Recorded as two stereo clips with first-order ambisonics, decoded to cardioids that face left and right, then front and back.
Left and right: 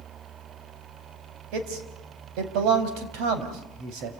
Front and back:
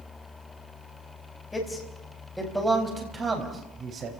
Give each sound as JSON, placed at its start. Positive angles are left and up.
{"t": 1.5, "sound": "a man speaking", "azimuth_deg": -80, "distance_m": 5.0}